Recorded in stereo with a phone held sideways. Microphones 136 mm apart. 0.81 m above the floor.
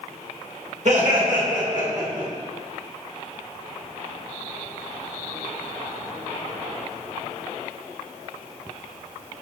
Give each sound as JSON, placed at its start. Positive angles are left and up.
{"t": 0.8, "sound": "laughter", "side_deg": -60, "distance_m": 1.1}